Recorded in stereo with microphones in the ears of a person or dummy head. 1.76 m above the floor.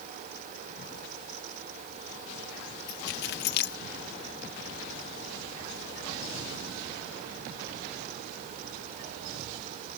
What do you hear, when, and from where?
2.9 s keys jangling: 55° left (ahead or behind)